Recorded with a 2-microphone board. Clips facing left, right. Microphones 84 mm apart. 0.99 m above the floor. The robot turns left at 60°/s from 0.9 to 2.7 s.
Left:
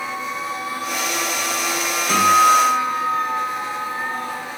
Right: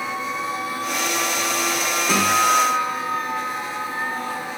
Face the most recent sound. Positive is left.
turn(degrees=155)